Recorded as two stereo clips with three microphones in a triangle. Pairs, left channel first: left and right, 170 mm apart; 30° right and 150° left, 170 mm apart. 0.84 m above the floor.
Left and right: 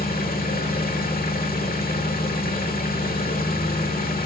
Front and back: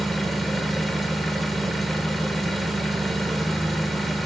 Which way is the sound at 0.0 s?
60° left.